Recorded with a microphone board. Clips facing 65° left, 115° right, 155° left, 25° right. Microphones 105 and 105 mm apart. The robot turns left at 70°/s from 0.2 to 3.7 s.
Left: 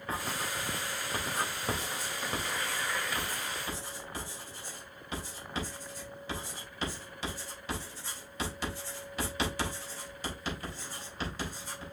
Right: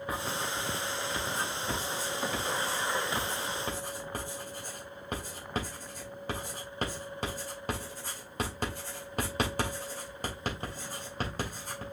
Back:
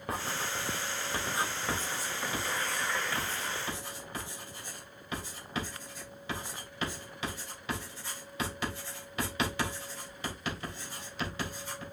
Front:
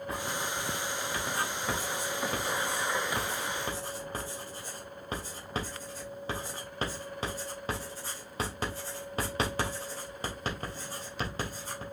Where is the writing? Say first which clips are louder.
Even, back 1 dB; 170° left, 3 m; by 11.8 s 75° right, 3 m.